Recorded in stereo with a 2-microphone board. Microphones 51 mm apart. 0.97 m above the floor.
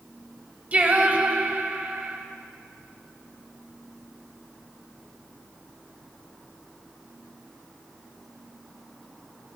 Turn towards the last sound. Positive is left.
turn(degrees=-30)  # may be behind; listen again after turning